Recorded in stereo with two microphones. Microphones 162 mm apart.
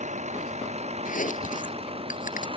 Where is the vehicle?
50° right (ahead or behind); by 2.6 s 35° right (ahead or behind).